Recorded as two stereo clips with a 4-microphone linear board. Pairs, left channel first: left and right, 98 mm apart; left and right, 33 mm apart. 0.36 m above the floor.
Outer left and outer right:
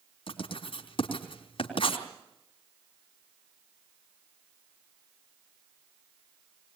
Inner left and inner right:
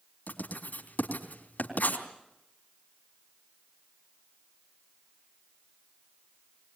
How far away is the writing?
About 3.5 m.